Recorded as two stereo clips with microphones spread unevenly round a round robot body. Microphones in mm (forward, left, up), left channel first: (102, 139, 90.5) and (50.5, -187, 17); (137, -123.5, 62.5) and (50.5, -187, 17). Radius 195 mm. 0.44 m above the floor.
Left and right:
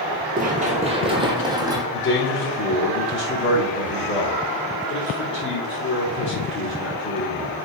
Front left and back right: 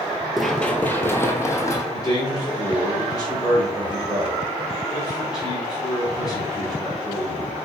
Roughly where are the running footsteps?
Ahead right.